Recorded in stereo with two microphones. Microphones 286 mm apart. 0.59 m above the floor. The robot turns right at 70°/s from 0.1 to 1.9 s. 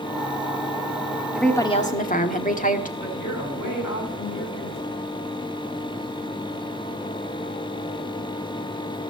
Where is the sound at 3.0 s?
80° left, 5 m.